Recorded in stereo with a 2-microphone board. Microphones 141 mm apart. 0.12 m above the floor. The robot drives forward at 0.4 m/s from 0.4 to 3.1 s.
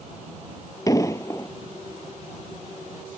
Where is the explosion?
25° left (ahead or behind); by 1.5 s 20° left (ahead or behind).